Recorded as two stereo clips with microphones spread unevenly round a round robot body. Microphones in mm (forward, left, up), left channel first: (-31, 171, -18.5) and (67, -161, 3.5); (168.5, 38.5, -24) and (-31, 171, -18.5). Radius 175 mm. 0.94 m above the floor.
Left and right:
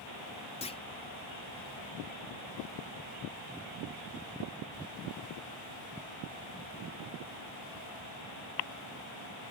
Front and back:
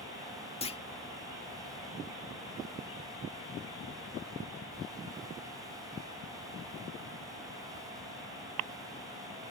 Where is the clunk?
35° left.